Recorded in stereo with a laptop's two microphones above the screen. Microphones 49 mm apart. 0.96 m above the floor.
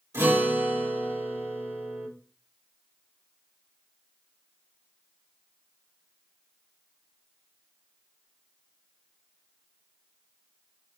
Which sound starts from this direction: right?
A guitar, at 0.1 s.